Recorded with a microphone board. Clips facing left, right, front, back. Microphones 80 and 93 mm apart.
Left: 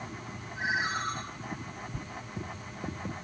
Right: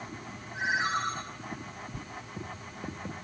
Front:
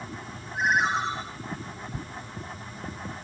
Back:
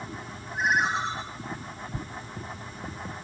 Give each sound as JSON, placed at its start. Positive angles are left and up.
{"t": 0.5, "sound": "a ringtone", "azimuth_deg": -90, "distance_m": 6.5}